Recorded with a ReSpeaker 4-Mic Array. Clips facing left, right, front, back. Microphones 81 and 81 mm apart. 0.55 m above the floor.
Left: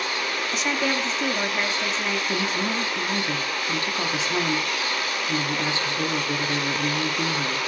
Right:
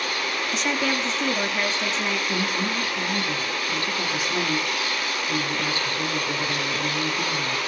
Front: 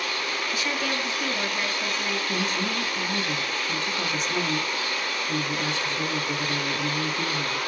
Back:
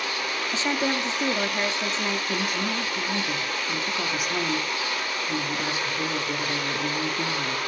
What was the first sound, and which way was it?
A woman speaking, 175° left.